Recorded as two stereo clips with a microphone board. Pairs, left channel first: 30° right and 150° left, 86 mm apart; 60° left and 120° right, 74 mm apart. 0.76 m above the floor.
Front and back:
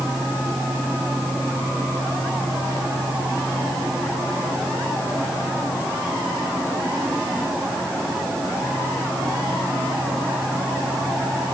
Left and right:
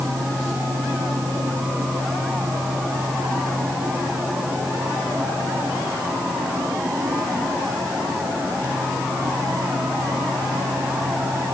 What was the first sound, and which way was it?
Only background noise.